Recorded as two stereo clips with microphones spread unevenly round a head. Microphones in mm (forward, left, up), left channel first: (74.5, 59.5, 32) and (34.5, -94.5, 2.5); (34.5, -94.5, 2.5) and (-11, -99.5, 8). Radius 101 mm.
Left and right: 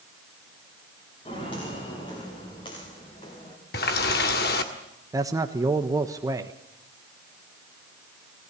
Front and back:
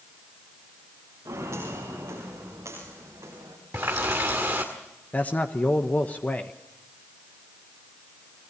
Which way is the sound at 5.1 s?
40° right.